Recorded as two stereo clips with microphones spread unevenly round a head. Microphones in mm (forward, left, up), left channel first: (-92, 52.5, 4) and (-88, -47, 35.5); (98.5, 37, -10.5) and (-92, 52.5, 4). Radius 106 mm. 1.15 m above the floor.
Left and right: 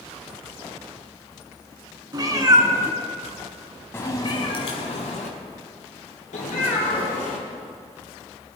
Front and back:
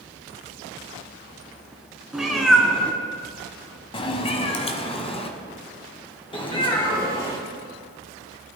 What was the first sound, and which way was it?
A cat meowing, 100° right.